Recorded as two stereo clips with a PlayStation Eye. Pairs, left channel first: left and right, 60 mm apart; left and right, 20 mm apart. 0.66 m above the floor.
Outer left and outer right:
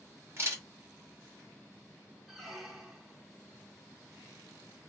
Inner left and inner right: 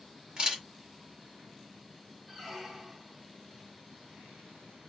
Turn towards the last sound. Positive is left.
turn(degrees=-5)  # may be behind; listen again after turning